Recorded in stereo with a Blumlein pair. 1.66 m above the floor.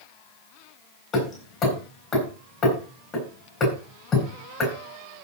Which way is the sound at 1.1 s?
30° left.